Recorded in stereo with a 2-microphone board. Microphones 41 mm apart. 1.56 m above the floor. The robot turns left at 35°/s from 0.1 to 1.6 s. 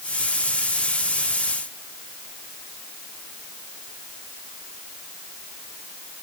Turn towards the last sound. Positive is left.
No sound to turn to.